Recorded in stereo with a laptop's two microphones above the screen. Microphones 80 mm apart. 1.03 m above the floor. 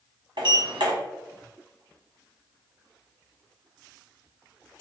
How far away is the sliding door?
About 1.3 m.